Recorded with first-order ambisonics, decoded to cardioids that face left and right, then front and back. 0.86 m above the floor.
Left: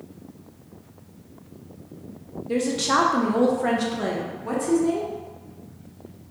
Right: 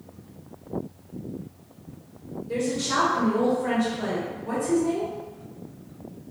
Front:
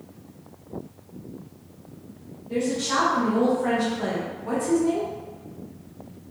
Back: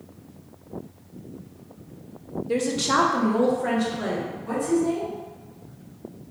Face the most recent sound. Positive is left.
turn(degrees=70)